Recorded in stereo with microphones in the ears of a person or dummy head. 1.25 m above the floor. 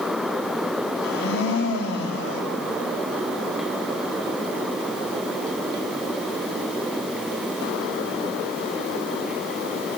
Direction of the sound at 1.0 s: 60° left (ahead or behind).